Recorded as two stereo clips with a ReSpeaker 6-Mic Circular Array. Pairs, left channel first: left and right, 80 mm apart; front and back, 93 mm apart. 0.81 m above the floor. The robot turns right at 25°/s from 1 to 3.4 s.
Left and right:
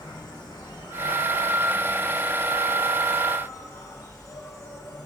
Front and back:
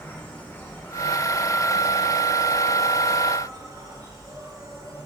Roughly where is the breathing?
No breathing in this recording.